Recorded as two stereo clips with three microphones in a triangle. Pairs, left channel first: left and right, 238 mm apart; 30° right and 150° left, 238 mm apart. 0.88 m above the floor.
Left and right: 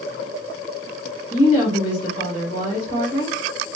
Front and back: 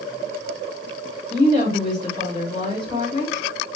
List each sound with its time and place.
1.3 s a woman speaking: 80° left, 3 m